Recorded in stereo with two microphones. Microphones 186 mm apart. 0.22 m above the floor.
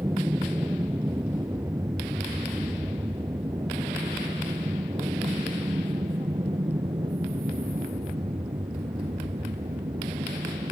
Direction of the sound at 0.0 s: 15° right (ahead or behind).